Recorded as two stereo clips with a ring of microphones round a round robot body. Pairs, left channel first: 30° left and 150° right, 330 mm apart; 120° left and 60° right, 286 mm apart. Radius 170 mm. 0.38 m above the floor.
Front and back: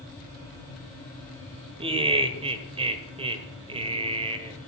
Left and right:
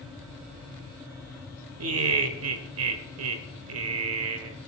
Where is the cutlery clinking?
I don't hear cutlery clinking.